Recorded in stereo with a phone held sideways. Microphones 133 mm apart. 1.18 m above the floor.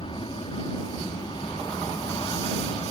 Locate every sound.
0.0 s an aircraft: 40° left (ahead or behind)